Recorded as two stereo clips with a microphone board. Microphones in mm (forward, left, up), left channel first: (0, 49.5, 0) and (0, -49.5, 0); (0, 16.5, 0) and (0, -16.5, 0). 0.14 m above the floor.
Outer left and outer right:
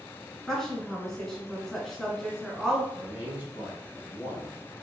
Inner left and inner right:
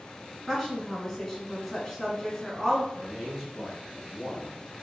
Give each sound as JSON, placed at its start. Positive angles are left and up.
{"t": 0.5, "sound": "a woman speaking", "side_deg": 5, "distance_m": 1.1}
{"t": 2.9, "sound": "a man speaking", "side_deg": -15, "distance_m": 1.5}